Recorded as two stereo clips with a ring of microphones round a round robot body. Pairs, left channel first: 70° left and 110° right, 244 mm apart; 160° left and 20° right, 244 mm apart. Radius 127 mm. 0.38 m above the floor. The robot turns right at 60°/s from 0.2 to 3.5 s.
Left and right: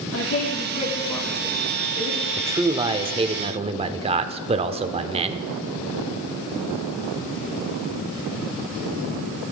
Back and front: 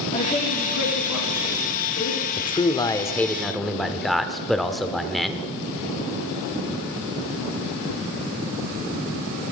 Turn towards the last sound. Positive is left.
turn(degrees=-115)